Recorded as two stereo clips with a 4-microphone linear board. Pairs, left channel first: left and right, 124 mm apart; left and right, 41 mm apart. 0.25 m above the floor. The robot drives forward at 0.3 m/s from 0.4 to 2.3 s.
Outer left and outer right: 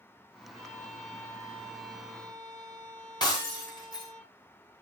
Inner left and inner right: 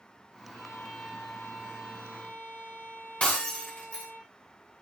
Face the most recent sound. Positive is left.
turn(degrees=35)  # may be behind; listen again after turning